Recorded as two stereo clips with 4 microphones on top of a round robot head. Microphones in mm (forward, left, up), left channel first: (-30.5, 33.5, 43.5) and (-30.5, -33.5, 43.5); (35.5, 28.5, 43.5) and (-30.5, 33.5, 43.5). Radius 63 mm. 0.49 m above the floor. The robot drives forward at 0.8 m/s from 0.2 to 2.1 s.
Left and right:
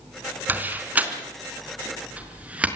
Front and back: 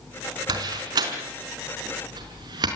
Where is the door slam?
155° right, 4 m; by 2.7 s 160° right, 5 m.